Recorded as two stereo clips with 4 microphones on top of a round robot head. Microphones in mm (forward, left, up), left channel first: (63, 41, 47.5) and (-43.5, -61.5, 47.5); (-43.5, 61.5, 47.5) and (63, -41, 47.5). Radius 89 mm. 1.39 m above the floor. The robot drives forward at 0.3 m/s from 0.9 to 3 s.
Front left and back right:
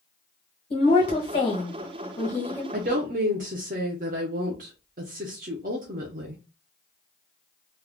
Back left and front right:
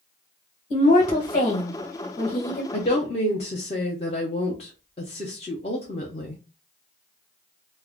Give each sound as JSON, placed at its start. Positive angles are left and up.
{"t": 0.7, "sound": "a woman speaking", "azimuth_deg": 90, "distance_m": 1.2}
{"t": 2.7, "sound": "a woman speaking", "azimuth_deg": -170, "distance_m": 0.5}